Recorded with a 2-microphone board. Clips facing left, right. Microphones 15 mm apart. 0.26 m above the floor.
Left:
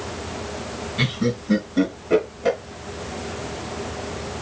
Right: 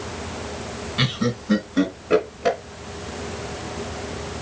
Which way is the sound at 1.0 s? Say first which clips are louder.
Even; 5° right (ahead or behind).